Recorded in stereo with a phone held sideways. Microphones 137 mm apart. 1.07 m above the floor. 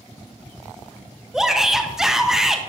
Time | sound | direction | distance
1.3 | a shout | 5° right (ahead or behind) | 0.9 m